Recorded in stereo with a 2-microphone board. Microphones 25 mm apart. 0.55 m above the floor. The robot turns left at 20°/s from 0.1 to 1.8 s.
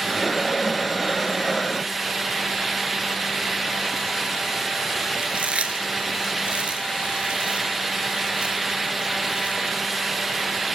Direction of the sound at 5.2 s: 55° right (ahead or behind).